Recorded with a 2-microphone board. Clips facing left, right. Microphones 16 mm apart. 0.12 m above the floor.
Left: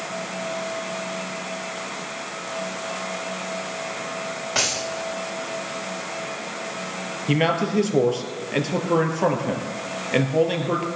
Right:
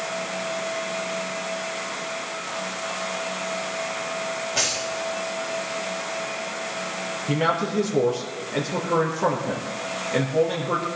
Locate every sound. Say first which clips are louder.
4.5 s a dropped coin: left 2 dB; 80° left, 8.5 m
7.3 s a man speaking: left 2 dB; 30° left (ahead or behind), 3 m